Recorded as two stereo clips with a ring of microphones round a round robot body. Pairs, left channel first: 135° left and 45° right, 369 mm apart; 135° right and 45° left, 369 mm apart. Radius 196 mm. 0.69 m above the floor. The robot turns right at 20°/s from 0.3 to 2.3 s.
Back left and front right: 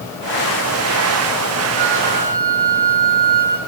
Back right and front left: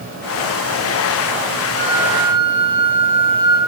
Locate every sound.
1.8 s a flute: 20° right, 8 m; by 3.6 s 10° right, 8 m